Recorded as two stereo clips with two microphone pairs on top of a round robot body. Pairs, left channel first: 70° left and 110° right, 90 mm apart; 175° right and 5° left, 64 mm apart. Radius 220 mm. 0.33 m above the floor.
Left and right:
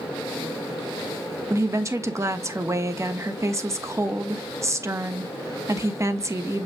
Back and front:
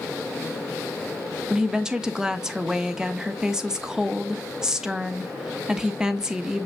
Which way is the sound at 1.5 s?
70° right.